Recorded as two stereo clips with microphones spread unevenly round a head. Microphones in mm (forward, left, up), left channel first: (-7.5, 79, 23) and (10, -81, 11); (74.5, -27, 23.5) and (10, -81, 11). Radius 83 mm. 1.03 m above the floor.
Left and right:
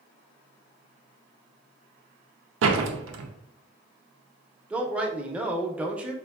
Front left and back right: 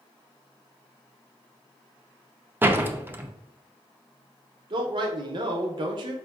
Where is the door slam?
70° right, 0.5 m.